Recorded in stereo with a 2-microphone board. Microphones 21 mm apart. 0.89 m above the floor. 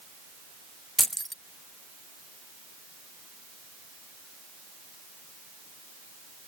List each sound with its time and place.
1.0 s keys jangling: 5° left (ahead or behind)